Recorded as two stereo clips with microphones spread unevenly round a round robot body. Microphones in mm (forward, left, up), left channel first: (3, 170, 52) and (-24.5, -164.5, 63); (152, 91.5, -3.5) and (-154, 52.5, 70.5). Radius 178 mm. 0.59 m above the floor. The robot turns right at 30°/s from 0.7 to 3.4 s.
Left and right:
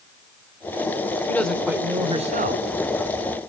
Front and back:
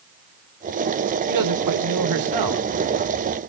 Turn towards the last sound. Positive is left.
turn(degrees=-130)